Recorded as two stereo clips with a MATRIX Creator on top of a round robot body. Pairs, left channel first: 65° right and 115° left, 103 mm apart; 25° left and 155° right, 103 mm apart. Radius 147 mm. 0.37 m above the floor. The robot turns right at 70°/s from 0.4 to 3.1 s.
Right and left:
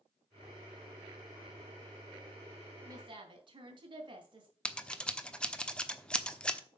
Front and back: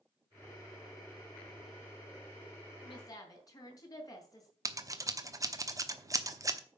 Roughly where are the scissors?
Behind right.